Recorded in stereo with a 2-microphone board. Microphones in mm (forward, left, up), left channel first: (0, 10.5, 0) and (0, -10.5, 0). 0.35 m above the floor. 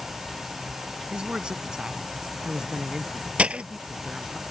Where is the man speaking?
55° right (ahead or behind); by 4.4 s 20° right (ahead or behind).